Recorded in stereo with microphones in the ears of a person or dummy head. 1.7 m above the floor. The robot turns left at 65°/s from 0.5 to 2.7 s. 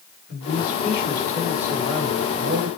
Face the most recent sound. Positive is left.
turn(degrees=-80)